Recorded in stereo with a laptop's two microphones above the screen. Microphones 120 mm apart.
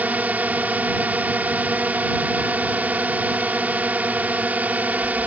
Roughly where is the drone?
Centre.